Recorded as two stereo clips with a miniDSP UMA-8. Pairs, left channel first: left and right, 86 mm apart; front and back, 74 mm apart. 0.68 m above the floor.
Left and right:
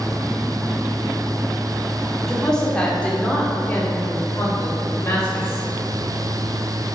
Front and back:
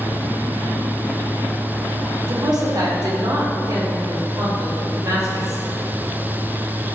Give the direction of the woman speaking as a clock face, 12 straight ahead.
6 o'clock.